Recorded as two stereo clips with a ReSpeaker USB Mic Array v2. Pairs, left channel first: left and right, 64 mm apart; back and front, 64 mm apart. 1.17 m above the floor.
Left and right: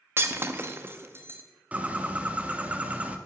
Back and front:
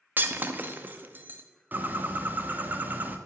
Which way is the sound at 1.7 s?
40° right.